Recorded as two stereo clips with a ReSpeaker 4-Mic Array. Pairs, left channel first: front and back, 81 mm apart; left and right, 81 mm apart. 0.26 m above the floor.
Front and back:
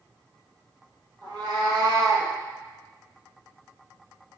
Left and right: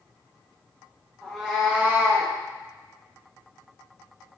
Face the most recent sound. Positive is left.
turn(degrees=-115)